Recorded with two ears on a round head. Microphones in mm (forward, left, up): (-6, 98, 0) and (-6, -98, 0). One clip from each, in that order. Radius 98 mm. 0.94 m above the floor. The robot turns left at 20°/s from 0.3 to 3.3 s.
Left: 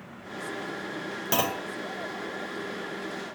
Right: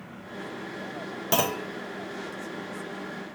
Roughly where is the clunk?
Centre.